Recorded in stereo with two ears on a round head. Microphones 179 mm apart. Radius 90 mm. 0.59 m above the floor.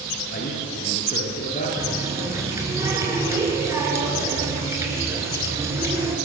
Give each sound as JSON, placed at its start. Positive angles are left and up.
{"t": 0.3, "sound": "a man speaking", "side_deg": 45, "distance_m": 8.5}
{"t": 1.8, "sound": "a running tap", "side_deg": -15, "distance_m": 5.5}